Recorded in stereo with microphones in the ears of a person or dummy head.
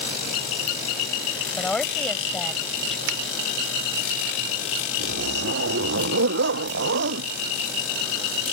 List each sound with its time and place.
1.6 s a woman speaking: 5° left (ahead or behind)
3.1 s a finger snap: 70° right (ahead or behind)
5.0 s a zipper: 55° right (ahead or behind)